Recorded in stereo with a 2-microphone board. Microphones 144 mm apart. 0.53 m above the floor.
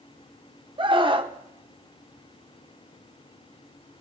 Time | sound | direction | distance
0.8 | a scream | 35° right (ahead or behind) | 1.1 m